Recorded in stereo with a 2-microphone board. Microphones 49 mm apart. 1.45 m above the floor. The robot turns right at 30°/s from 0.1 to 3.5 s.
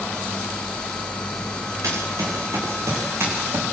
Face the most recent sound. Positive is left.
turn(degrees=-50)  # may be behind; listen again after turning